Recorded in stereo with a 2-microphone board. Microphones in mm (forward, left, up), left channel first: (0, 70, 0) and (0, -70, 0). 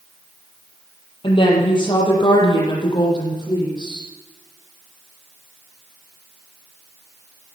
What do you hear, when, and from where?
1.2 s a woman speaking: 35° left (ahead or behind), 6 m; by 4.1 s 30° left (ahead or behind), 8 m